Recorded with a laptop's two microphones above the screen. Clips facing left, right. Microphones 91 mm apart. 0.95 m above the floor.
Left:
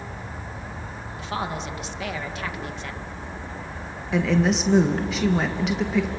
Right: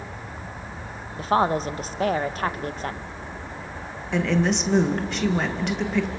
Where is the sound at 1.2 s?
40° right (ahead or behind), 0.8 m.